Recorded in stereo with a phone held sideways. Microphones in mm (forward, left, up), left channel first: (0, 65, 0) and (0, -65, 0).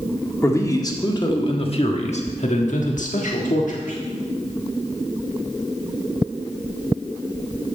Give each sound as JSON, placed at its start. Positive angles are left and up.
{"t": 0.4, "sound": "a man speaking", "side_deg": 20, "distance_m": 1.7}